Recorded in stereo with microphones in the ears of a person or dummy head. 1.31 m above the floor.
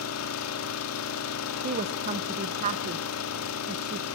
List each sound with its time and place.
0.0 s an engine running: 80° left, 2.0 m
1.6 s a woman speaking: 40° right (ahead or behind), 0.8 m